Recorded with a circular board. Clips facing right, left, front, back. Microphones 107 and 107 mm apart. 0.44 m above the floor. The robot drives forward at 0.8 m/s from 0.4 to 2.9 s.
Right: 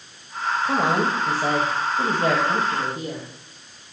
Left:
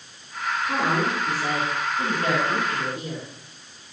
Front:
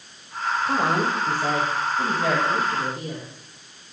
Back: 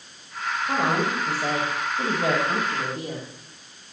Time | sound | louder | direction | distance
0.7 | a woman speaking | right 2 dB, even | 80° right | 1.8 m